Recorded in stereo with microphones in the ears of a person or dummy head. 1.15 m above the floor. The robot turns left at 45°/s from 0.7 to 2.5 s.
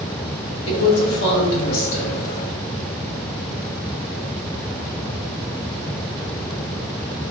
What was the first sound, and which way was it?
A woman speaking, 100° left.